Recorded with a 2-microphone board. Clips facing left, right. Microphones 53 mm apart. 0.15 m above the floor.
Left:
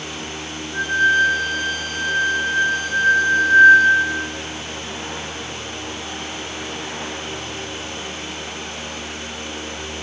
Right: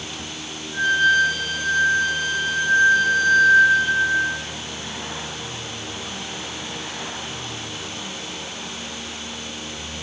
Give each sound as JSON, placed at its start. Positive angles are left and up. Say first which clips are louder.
{"t": 0.7, "sound": "a flute", "louder": "left 1 dB", "side_deg": -55, "distance_m": 1.0}